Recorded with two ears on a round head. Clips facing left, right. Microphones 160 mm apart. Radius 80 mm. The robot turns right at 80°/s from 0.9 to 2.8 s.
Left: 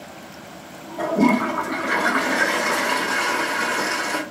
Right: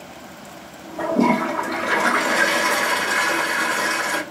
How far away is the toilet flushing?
About 1.4 m.